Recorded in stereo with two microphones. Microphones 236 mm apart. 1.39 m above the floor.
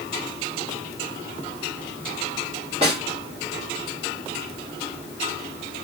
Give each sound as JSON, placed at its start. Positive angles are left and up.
{"t": 2.8, "sound": "a snare drum", "side_deg": -25, "distance_m": 2.5}